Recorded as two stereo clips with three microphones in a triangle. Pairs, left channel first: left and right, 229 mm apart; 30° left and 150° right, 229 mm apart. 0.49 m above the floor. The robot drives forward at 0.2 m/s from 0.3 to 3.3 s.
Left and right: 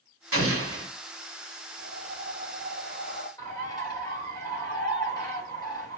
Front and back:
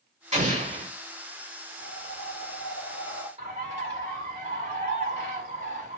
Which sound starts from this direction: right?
An explosion, at 0.3 s.